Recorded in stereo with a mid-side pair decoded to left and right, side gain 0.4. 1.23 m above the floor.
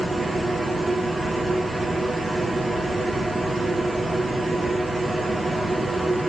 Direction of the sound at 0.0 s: 25° right.